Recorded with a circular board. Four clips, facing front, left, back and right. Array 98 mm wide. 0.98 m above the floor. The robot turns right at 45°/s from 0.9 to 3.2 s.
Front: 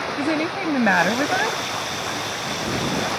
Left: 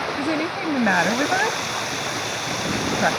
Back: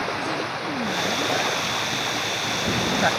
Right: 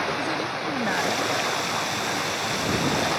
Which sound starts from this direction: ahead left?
A woman speaking, at 0.2 s.